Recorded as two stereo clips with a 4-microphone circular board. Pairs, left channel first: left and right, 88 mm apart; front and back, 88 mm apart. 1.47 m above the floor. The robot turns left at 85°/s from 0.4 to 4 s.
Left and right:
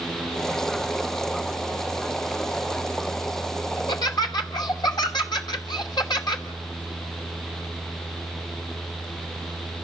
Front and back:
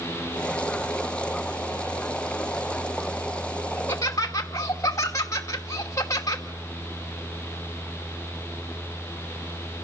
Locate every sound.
3.8 s laughter: 75° left, 2.5 m; by 6.5 s 55° left, 2.5 m